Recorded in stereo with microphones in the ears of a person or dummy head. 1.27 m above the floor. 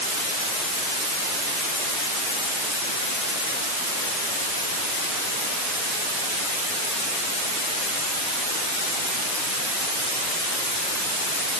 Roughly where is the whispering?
I don't hear whispering.